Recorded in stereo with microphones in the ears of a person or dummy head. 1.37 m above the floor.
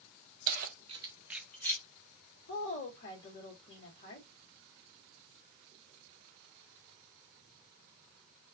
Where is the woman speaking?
60° left (ahead or behind), 1.8 m.